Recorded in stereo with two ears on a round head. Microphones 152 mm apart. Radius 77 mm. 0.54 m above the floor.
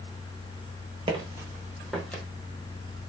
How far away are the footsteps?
About 0.6 m.